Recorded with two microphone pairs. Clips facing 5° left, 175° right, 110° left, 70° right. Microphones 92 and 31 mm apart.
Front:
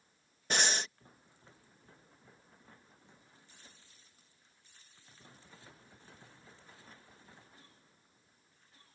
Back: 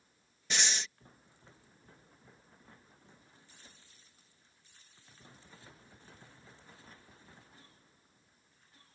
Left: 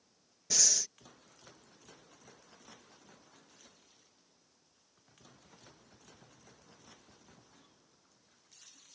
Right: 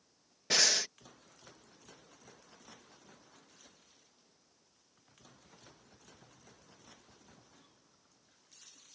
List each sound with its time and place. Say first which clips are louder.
0.5 s breathing: front 3 dB, right 5 dB; 35° right